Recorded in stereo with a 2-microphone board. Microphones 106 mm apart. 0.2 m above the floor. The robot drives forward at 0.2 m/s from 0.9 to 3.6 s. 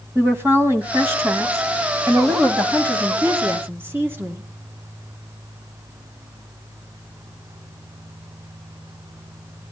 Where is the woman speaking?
25° right (ahead or behind), 1.5 m; by 4.4 s 20° right (ahead or behind), 1.6 m.